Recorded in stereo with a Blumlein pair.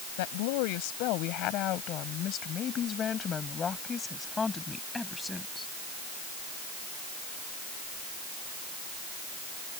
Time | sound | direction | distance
0.2 | a woman speaking | 50° left | ?